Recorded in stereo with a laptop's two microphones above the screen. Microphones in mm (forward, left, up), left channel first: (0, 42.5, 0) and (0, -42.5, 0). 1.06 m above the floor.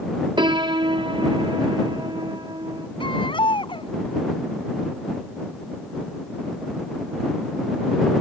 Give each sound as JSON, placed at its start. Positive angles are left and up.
{"t": 0.4, "sound": "a piano", "side_deg": -65}
{"t": 3.0, "sound": "a baby crying", "side_deg": 85}